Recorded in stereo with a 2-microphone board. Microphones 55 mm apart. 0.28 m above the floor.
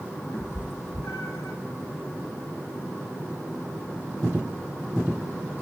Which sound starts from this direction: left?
A cat meowing, at 0.3 s.